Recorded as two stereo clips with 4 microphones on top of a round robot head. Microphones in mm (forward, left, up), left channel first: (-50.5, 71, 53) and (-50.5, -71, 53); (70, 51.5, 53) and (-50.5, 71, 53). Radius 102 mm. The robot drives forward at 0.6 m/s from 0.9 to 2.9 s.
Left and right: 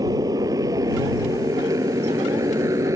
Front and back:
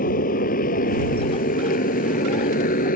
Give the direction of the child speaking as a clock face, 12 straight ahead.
I don't hear a child speaking.